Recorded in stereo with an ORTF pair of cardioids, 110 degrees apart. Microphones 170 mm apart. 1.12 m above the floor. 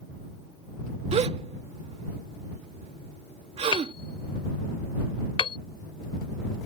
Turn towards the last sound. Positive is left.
turn(degrees=30)